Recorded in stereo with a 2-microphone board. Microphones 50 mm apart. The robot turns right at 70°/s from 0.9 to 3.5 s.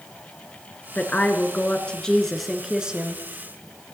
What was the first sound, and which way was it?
A woman speaking, 75° left.